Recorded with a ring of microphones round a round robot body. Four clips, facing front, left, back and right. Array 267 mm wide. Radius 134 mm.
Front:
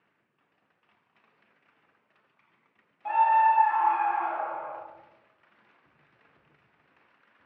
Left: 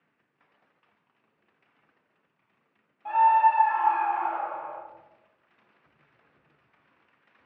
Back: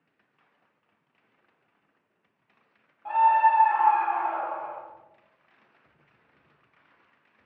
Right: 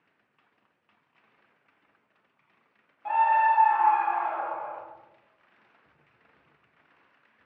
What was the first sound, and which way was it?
A scream, 45° right.